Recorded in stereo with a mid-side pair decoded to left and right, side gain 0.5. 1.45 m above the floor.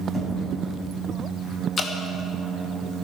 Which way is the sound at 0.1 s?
15° left.